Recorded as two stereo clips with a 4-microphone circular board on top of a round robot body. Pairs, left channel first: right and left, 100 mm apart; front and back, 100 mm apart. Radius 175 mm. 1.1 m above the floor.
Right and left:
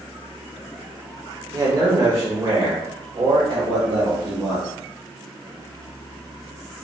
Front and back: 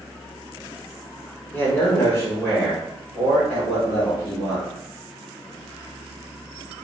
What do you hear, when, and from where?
1.5 s a man speaking: 65° left, 0.9 m; by 4.7 s 50° left, 2.5 m